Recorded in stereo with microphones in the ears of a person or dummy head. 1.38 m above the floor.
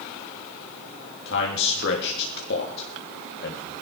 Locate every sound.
1.2 s a man speaking: 65° left (ahead or behind), 3 m